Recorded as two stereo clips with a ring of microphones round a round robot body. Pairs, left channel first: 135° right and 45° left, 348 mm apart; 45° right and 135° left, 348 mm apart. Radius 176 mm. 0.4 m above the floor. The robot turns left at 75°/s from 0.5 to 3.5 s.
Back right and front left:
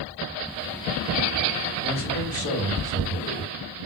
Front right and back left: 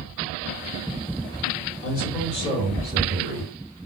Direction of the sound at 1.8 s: 70° right.